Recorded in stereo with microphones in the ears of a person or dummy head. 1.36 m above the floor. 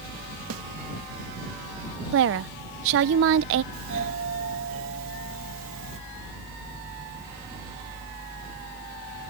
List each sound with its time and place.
0.5 s a snare drum: 80° right
2.1 s a woman speaking: 75° right (ahead or behind)
3.7 s a doorbell: 70° right (ahead or behind)